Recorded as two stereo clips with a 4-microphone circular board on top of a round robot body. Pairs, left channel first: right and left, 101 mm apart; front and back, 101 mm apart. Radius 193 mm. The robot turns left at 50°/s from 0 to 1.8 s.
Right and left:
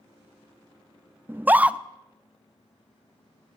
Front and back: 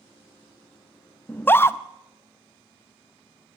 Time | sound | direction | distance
1.3 | a scream | 50° left | 0.6 m